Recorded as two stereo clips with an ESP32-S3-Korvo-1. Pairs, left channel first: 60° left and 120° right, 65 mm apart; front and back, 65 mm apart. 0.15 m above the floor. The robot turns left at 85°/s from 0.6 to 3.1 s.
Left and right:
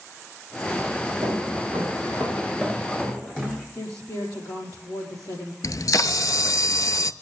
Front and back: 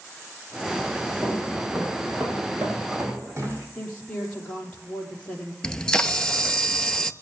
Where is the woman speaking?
65° left, 5 m.